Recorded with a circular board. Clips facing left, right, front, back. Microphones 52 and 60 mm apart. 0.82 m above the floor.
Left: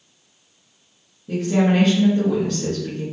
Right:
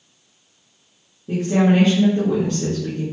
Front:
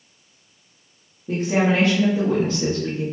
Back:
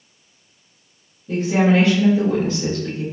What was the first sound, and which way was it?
A woman speaking, 30° right.